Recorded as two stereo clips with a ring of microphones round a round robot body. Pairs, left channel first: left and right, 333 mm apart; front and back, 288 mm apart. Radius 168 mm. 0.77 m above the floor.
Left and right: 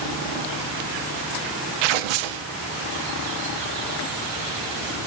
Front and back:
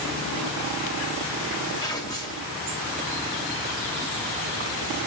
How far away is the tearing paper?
About 0.5 m.